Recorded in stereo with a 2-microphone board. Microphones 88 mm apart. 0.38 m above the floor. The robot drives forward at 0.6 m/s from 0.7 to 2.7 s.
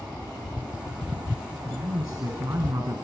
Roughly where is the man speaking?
Right.